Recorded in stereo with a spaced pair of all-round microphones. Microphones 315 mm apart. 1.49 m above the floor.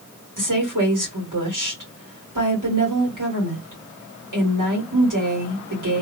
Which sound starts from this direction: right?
A woman speaking, at 0.4 s.